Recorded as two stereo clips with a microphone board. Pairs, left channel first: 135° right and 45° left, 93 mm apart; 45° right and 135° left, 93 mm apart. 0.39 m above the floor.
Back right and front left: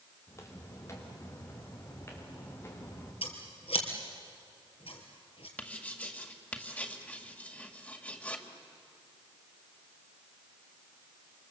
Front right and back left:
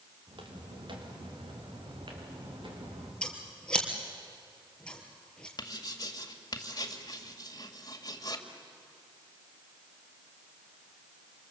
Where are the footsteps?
165° left, 5 m; by 3.1 s 160° left, 6.5 m.